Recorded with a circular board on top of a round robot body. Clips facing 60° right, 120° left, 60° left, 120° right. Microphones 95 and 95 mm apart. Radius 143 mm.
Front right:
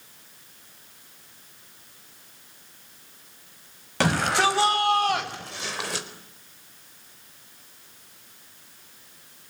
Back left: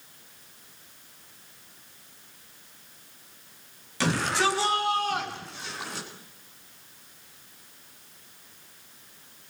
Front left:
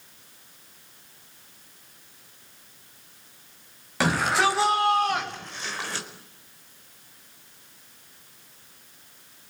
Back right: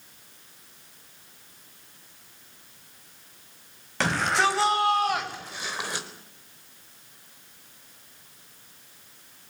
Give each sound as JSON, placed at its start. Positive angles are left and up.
{"t": 4.0, "sound": "a shout", "azimuth_deg": -25, "distance_m": 6.0}